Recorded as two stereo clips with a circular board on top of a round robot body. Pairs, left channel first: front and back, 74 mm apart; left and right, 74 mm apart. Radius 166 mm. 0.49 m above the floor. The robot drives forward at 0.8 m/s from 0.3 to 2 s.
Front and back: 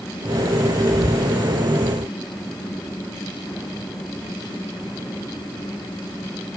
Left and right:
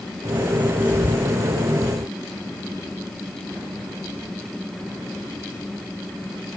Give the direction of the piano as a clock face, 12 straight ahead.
No piano in this recording.